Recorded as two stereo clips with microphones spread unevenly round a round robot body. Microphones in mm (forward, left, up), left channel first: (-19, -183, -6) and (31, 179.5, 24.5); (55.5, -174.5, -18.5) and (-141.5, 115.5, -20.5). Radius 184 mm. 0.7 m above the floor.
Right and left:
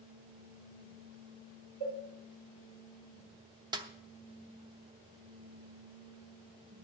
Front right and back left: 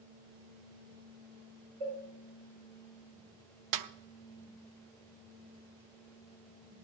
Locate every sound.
1.8 s a cowbell: 110° left, 6.5 m
3.7 s a snare drum: 160° left, 0.7 m